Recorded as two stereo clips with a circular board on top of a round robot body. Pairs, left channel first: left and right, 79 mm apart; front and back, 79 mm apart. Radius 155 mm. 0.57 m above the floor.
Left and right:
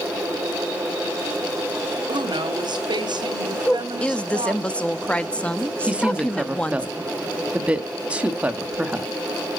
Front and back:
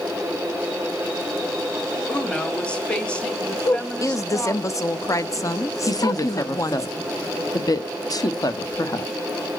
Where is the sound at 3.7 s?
20° left, 0.8 m.